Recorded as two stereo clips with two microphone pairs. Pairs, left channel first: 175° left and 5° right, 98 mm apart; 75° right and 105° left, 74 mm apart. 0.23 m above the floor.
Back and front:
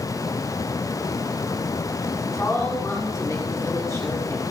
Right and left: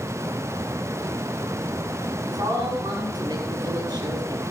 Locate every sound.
2.2 s a woman speaking: 115° left, 6 m